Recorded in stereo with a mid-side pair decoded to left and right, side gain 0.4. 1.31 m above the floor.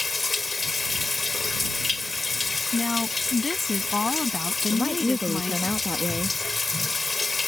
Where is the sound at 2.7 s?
30° left.